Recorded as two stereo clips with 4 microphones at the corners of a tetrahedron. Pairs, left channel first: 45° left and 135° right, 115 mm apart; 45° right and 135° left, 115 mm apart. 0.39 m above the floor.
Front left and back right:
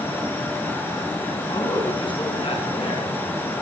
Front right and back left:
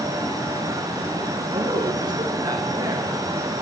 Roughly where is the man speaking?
Left.